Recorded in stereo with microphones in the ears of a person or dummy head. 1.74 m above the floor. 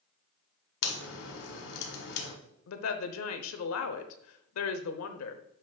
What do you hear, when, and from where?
0.8 s a crack: 75° left (ahead or behind), 1.9 m
2.7 s a woman speaking: 80° left, 0.8 m